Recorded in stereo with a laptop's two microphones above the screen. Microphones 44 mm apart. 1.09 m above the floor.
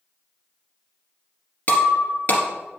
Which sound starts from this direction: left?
Breaking glass, at 1.7 s.